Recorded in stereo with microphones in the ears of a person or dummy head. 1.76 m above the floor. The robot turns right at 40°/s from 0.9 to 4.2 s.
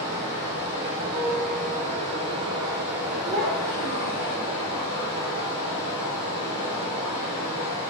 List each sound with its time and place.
0.0 s running water: 100° right, 1.6 m; by 7.9 s 30° left, 1.6 m
1.1 s a piano: 20° right, 0.6 m; by 2.6 s 40° left, 0.6 m
3.2 s a child speaking: 75° right, 1.1 m; by 4.4 s 35° right, 1.1 m